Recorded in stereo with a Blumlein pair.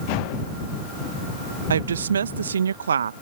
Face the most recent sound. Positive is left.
turn(degrees=-70)